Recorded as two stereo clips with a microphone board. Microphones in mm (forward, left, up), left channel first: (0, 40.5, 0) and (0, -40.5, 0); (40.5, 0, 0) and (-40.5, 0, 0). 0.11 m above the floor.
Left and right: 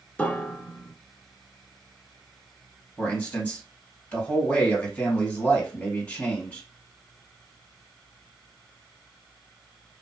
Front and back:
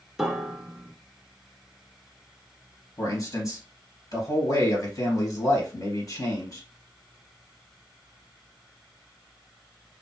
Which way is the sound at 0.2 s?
110° left.